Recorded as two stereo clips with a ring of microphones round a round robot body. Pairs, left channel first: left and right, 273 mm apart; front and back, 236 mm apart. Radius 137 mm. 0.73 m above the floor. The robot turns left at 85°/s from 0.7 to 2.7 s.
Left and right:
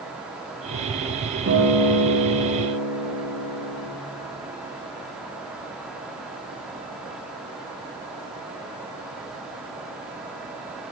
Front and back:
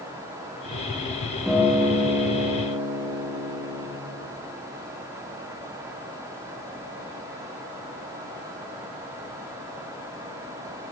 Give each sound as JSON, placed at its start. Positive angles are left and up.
{"t": 1.5, "sound": "a guitar", "azimuth_deg": -90, "distance_m": 1.4}